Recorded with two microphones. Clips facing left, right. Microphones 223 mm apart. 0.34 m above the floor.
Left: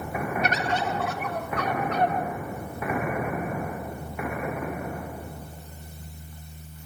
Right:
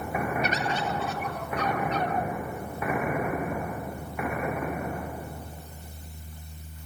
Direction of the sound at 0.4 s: 65° left (ahead or behind).